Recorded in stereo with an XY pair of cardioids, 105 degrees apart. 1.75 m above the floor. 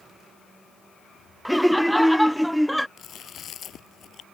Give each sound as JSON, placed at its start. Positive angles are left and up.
{"t": 1.4, "sound": "laughter", "azimuth_deg": 5}
{"t": 3.0, "sound": "chewing", "azimuth_deg": 60}